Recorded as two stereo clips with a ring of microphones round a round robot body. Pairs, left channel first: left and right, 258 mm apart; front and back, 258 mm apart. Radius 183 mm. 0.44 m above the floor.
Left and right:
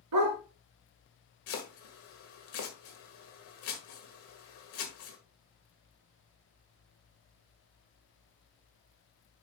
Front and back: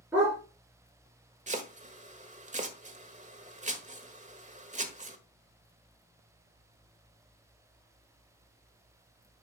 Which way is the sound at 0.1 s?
100° right.